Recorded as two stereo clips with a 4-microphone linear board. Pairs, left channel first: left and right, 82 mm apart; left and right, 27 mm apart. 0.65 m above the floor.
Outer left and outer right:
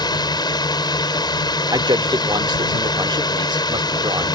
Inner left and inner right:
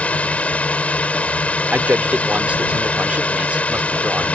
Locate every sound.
0.0 s a drone: 60° left (ahead or behind)
1.7 s a man speaking: 65° right (ahead or behind)